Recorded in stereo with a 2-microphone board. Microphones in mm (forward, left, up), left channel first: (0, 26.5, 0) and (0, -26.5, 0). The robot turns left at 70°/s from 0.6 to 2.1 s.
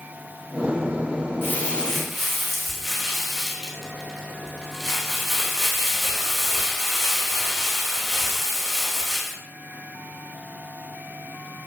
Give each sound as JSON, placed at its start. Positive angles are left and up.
{"t": 1.4, "sound": "crumpling", "azimuth_deg": 45, "distance_m": 3.0}